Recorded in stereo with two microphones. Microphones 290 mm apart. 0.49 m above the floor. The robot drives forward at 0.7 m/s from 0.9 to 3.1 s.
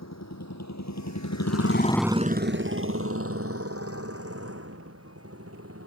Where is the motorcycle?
75° left (ahead or behind); by 5.9 s 55° right (ahead or behind).